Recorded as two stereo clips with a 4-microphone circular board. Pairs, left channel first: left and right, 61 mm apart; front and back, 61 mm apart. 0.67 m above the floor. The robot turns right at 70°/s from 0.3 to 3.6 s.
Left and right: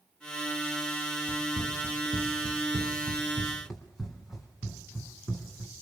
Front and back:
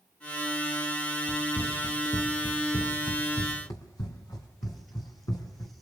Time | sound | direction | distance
1.3 | running footsteps | 145° right | 4.5 m